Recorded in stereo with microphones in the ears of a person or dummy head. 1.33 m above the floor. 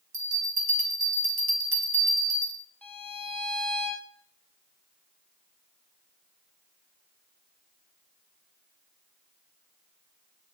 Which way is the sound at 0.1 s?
45° right (ahead or behind).